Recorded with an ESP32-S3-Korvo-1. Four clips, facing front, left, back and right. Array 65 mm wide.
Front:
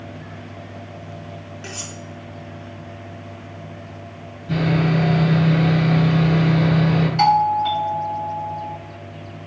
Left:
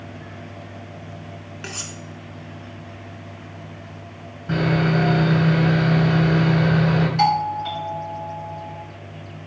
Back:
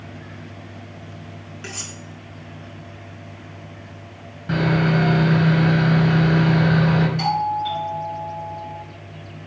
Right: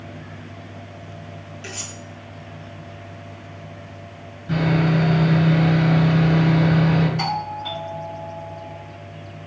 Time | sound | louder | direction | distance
1.6 | cutlery clinking | left 2 dB, back 1 dB | 95° left | 3.5 m
4.5 | sawing | even, even | 145° left | 6 m
7.2 | a doorbell | left 6 dB, front 6 dB | 30° left | 3 m